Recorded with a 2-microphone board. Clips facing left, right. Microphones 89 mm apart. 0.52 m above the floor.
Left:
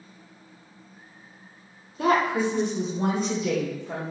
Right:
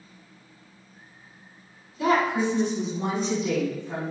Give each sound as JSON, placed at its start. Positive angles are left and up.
{"t": 2.0, "sound": "a woman speaking", "side_deg": 50, "distance_m": 1.0}